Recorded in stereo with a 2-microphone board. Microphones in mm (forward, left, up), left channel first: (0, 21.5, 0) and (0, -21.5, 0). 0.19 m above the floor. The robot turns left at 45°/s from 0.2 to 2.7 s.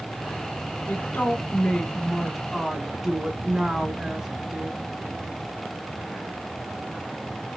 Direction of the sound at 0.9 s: 65° left.